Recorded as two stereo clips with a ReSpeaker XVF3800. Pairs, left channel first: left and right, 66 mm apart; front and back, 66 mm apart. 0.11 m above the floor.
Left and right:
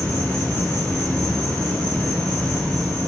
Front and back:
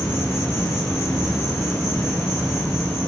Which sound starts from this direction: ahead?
An insect, at 0.0 s.